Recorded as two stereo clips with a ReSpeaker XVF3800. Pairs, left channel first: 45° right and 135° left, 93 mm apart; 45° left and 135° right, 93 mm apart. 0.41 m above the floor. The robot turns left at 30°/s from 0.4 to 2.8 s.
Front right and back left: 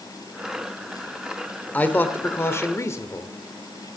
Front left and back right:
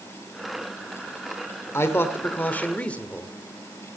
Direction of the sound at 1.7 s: 15° left.